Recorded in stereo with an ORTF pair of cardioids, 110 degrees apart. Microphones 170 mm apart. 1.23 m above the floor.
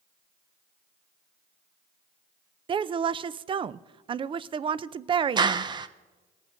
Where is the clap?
25° right, 0.7 m.